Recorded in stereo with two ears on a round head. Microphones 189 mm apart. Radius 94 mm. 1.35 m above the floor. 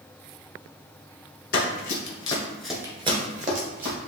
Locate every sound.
1.5 s running footsteps: 45° left (ahead or behind), 2.0 m; by 4.0 s 50° right (ahead or behind), 2.5 m